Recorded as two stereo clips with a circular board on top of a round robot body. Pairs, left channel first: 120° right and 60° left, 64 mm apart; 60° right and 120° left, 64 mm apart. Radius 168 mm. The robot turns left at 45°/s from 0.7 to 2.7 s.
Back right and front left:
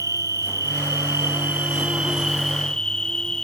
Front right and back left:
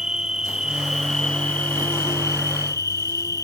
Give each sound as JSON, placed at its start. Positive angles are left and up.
{"t": 0.0, "sound": "an insect", "azimuth_deg": 45}